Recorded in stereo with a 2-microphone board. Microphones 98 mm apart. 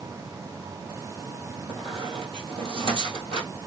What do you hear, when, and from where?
1.7 s a squeak: 60° right (ahead or behind), 1.7 m